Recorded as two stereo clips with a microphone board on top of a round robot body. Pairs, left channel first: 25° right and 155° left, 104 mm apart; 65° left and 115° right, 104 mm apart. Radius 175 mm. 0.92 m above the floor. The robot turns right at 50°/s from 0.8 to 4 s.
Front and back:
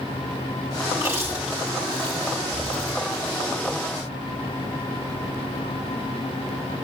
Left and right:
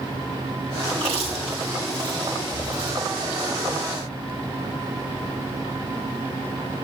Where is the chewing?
150° right, 2 m; by 3.1 s 40° right, 2 m.